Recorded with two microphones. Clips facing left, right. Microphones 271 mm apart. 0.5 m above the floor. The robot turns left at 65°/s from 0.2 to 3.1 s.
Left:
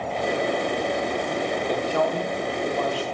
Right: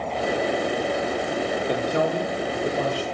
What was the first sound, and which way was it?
A man speaking, 15° right (ahead or behind).